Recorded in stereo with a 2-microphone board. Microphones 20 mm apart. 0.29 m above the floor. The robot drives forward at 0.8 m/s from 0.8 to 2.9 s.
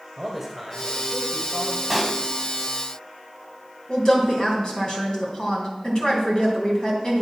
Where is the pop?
Centre (ahead or behind), 0.8 m; by 2.2 s 5° right (ahead or behind), 0.6 m.